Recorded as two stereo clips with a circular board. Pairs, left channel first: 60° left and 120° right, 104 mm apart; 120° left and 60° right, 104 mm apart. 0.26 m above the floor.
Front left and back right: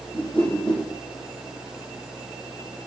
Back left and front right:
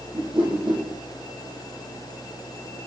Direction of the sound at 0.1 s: 20° right.